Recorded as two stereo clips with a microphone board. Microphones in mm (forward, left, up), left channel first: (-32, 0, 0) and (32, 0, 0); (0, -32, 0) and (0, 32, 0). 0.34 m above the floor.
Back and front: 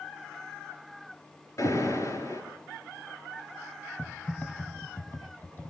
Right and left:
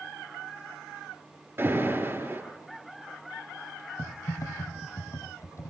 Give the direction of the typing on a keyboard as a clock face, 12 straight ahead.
4 o'clock.